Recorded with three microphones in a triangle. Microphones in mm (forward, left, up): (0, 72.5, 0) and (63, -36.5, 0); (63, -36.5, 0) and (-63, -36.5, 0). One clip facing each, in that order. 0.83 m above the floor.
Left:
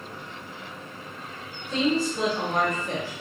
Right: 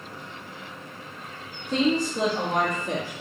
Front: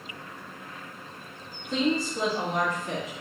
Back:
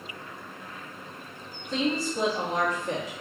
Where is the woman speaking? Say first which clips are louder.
Right 1 dB, front 1 dB; 80° right, 0.9 m; by 3.1 s 115° right, 1.7 m.